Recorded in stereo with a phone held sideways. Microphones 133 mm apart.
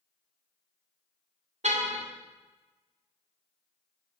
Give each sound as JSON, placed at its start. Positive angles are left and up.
{"t": 1.6, "sound": "a car horn", "side_deg": -65, "distance_m": 2.5}